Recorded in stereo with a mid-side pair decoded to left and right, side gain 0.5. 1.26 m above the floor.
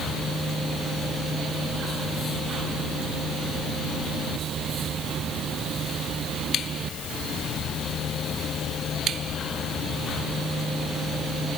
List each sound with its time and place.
Only background noise.